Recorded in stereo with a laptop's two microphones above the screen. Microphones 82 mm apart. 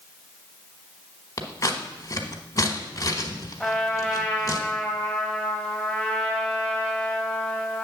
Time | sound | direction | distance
1.4 | scissors | 40° left (ahead or behind) | 1.2 m
3.6 | a trumpet | centre (ahead or behind) | 3 m